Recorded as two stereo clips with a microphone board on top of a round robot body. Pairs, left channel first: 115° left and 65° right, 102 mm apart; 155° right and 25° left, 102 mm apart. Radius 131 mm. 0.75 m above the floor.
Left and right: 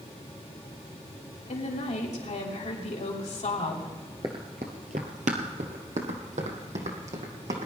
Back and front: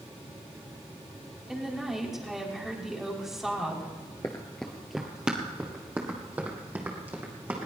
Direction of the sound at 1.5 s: 110° left.